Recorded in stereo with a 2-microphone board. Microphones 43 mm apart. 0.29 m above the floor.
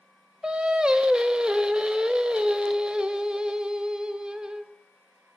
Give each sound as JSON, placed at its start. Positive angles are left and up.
{"t": 0.4, "sound": "singing", "side_deg": -20, "distance_m": 0.6}